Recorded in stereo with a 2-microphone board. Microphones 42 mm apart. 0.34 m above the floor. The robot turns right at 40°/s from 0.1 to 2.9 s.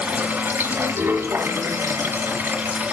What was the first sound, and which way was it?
Running water, 145° right.